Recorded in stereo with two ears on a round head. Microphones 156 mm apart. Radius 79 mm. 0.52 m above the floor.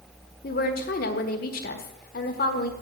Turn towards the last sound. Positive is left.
turn(degrees=55)  # may be behind; listen again after turning